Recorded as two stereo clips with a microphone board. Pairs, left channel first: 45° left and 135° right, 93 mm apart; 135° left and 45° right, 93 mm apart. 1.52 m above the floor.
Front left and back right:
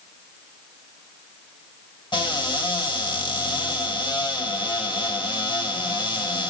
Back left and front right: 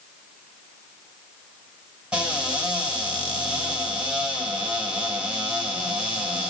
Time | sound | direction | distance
2.1 | a cupboard door | 35° left | 2.5 m